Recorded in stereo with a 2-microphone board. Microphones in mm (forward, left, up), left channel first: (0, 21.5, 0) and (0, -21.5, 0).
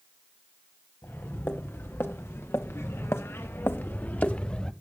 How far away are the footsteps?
About 3 m.